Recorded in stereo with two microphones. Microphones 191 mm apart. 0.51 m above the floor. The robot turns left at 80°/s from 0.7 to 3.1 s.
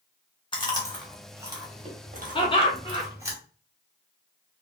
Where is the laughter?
25° left (ahead or behind), 0.9 m.